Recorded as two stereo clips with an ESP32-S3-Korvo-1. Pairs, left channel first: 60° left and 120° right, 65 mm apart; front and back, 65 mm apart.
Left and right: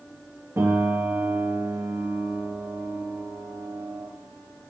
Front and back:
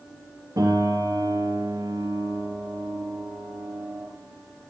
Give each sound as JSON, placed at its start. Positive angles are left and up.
{"t": 0.6, "sound": "a piano", "azimuth_deg": -170, "distance_m": 5.0}